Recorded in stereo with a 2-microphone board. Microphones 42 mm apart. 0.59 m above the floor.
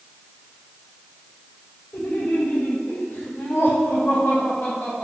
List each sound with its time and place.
1.9 s laughter: 65° left (ahead or behind), 3 m; by 5.0 s 80° left, 5.5 m